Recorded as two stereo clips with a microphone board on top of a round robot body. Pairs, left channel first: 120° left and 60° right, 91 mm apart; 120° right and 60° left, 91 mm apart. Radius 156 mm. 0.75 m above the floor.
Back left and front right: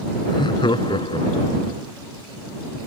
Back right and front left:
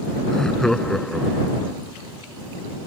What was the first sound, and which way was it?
Laughter, 155° left.